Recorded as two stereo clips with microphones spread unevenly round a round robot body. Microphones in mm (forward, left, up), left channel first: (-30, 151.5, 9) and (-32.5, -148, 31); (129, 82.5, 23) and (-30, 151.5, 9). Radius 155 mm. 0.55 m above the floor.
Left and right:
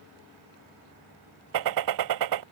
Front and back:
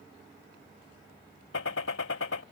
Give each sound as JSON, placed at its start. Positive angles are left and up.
{"t": 1.5, "sound": "a gunshot", "azimuth_deg": -60}